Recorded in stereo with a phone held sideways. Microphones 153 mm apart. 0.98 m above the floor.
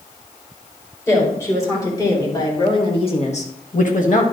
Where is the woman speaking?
15° left (ahead or behind), 4.5 m; by 4.2 s 50° left (ahead or behind), 1.2 m.